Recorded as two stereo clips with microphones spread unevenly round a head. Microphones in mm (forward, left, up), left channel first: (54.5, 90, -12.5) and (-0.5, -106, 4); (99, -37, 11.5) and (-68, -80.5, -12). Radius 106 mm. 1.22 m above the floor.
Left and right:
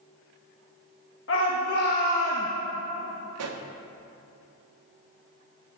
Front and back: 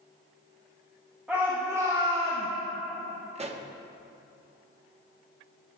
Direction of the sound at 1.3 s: 110° left.